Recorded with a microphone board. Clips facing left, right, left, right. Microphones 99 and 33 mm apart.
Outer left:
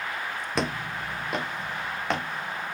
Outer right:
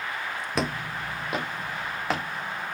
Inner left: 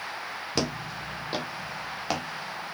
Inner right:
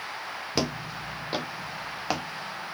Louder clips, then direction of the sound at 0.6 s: Even, inner right 1 dB; 5° right (ahead or behind).